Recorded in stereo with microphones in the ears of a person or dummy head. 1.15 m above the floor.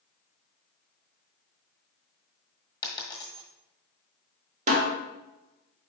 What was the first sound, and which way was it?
A dropped coin, 25° left (ahead or behind).